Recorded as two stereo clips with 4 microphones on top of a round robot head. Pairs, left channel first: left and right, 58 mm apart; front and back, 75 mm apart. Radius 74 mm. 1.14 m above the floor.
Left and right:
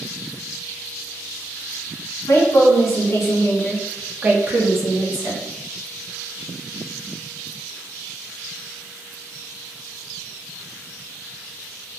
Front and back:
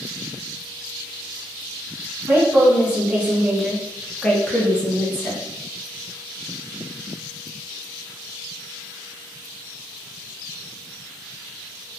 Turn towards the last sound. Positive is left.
turn(degrees=-70)